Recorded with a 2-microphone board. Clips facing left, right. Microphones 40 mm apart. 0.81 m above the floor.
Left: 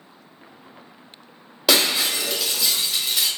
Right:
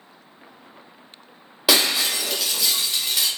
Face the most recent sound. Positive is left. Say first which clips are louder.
# even
turn(degrees=-5)  # may be behind; listen again after turning